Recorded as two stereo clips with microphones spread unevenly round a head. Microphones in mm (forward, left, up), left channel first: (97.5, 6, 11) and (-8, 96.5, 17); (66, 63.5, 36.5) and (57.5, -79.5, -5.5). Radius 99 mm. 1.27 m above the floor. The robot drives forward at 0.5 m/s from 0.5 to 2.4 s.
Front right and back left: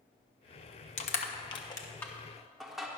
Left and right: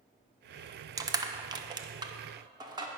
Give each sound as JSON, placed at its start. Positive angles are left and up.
{"t": 1.0, "sound": "crushing", "azimuth_deg": -50, "distance_m": 0.7}